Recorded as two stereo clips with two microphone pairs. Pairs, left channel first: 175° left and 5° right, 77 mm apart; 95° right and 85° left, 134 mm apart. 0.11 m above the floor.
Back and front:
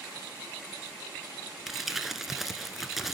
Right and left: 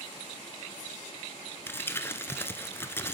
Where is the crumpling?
85° right, 0.7 m.